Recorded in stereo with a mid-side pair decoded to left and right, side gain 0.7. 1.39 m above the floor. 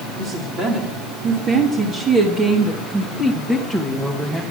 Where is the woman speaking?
45° right, 3 m; by 4.4 s straight ahead, 1.6 m.